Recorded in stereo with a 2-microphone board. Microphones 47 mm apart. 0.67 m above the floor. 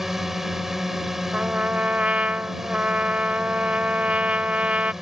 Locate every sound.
0.0 s a drone: 5° right (ahead or behind)
1.3 s a trumpet: 30° right (ahead or behind)